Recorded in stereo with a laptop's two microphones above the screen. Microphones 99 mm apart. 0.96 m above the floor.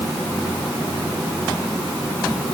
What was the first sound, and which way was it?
Only background noise.